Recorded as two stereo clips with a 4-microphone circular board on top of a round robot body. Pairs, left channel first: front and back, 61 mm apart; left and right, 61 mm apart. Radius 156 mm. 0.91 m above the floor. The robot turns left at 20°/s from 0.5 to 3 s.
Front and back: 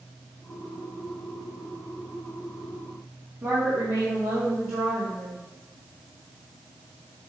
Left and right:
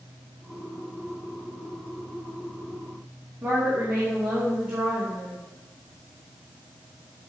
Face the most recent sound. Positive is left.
turn(degrees=-155)